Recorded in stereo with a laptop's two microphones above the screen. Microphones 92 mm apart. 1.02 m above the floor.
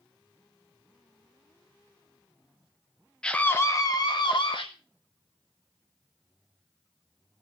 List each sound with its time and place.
3.2 s a scream: 10° left (ahead or behind), 0.9 m; by 4.7 s 65° left (ahead or behind), 1.4 m